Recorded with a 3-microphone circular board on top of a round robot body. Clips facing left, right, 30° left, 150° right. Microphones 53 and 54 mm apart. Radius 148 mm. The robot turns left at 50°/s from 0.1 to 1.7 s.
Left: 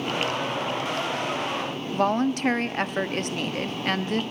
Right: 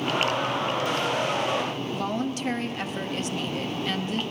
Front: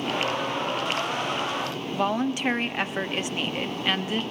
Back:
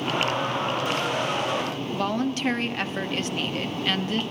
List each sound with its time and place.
1.9 s a woman speaking: 105° left, 1.3 m